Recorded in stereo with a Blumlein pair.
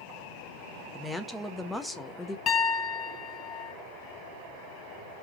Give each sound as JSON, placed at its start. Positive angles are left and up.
{"t": 0.9, "sound": "a woman speaking", "azimuth_deg": 0, "distance_m": 0.7}
{"t": 2.5, "sound": "a piano", "azimuth_deg": 25, "distance_m": 0.8}